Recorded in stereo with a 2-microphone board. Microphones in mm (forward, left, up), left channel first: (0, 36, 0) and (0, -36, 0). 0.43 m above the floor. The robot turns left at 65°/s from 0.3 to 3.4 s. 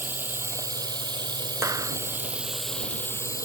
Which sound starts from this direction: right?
A clap, at 1.6 s.